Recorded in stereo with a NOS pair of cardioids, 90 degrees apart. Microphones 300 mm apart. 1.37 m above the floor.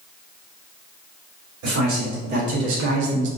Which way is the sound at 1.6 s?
70° right.